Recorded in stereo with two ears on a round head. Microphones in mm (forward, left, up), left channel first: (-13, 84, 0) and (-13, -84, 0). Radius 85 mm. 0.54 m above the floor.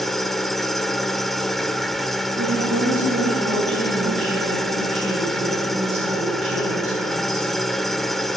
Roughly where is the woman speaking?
Right.